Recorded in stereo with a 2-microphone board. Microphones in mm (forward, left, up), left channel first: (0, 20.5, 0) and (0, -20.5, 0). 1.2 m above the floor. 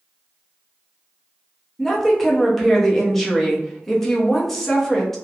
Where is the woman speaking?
5° left (ahead or behind), 0.8 m.